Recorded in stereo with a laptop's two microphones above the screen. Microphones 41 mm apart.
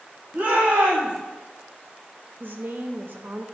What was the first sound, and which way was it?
A shout, 45° right (ahead or behind).